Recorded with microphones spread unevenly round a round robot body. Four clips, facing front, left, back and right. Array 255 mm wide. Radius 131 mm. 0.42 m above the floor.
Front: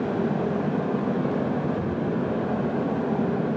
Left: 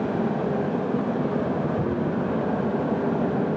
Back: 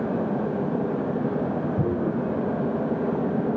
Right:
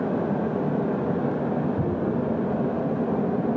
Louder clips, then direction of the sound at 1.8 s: Even, back 2 dB; 175° right.